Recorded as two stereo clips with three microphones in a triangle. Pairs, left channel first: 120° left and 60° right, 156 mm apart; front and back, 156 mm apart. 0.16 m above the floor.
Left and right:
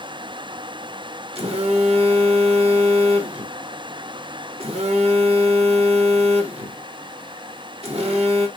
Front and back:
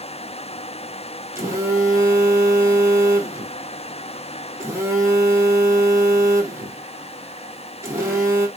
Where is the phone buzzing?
110° right, 1.7 m.